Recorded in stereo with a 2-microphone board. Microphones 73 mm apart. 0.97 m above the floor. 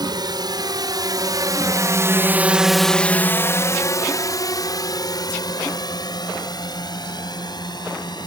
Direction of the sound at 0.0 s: 70° right (ahead or behind).